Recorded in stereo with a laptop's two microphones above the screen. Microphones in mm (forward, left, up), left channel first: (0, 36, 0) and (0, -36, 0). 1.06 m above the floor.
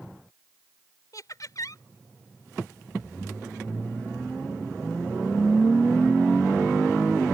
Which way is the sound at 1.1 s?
55° left (ahead or behind).